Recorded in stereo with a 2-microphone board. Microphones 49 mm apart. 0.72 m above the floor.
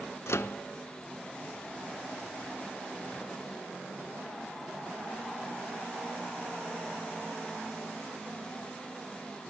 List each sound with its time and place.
0.3 s a microwave: 65° left (ahead or behind), 0.5 m